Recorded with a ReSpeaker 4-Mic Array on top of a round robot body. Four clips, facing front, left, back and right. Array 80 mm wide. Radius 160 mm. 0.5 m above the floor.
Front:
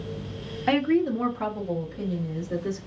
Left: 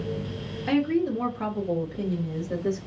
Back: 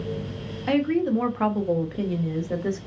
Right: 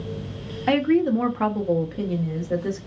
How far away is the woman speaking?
About 0.8 m.